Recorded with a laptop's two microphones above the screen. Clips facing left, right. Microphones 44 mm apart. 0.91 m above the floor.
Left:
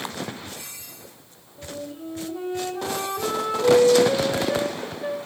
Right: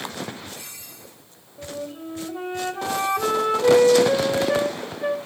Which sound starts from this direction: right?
A flute, at 1.6 s.